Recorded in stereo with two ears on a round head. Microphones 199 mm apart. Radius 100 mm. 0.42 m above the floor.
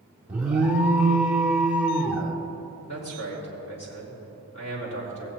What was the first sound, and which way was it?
An alarm, 5° right (ahead or behind).